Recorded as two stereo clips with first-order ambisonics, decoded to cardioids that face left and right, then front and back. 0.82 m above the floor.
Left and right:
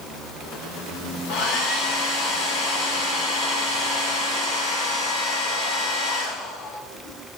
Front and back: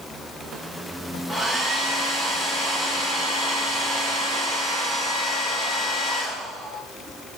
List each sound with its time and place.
1.3 s a hair dryer: 75° left, 3.5 m